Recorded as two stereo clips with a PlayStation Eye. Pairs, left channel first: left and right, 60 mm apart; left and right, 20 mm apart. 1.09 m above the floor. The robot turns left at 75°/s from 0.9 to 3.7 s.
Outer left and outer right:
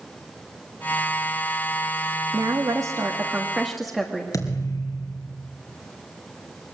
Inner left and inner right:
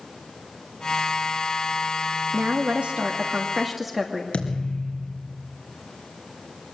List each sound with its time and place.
2.3 s a woman speaking: 75° right, 1.5 m; by 4.2 s 175° right, 1.5 m
4.3 s a thud: 70° left (ahead or behind), 3 m